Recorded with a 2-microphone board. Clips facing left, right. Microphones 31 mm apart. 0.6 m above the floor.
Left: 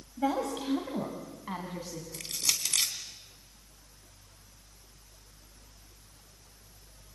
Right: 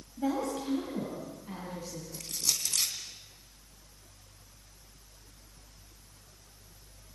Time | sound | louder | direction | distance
0.2 | a woman speaking | left 1 dB | 30° left (ahead or behind) | 3 m
2.1 | crushing | left 2 dB | 75° left (ahead or behind) | 2.5 m